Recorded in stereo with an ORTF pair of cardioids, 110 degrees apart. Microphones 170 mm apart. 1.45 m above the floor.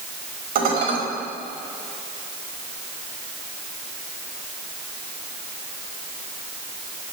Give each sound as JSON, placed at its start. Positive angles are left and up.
{"t": 0.6, "sound": "dishes clattering", "azimuth_deg": -60, "distance_m": 5.0}